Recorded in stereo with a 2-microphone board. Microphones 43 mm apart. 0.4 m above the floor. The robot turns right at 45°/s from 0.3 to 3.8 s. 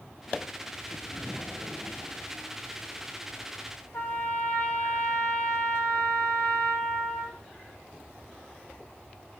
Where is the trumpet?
55° left (ahead or behind), 0.8 m.